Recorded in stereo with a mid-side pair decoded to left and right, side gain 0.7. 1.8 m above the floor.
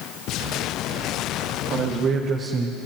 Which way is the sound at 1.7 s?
50° right.